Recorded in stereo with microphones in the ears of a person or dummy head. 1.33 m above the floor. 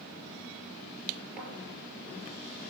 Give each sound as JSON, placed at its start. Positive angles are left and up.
{"t": 1.4, "sound": "a thud", "side_deg": 0, "distance_m": 4.5}